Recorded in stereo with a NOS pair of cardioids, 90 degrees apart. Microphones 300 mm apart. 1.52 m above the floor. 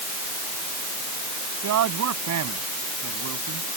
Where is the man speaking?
65° right.